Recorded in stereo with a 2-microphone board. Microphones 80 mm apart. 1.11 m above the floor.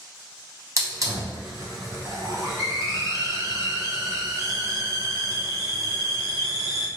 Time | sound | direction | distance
0.8 | a hiss | 40° right (ahead or behind) | 0.7 m